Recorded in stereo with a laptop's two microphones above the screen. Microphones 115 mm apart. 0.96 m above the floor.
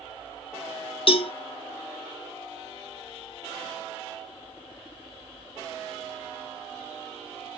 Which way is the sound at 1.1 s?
50° left (ahead or behind).